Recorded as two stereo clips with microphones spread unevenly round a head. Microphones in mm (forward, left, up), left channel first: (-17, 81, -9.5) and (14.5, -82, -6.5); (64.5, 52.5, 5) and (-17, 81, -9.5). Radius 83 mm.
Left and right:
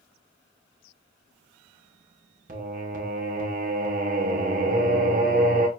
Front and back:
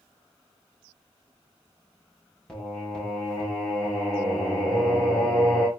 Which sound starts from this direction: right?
Singing, at 2.5 s.